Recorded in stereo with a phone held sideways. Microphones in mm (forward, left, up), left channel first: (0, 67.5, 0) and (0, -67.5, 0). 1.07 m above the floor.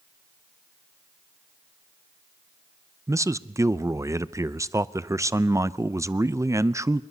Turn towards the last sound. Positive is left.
turn(degrees=-20)  # may be behind; listen again after turning